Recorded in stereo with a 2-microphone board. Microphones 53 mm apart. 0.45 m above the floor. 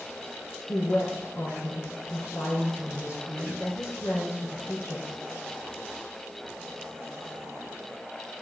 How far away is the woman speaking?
About 5.5 m.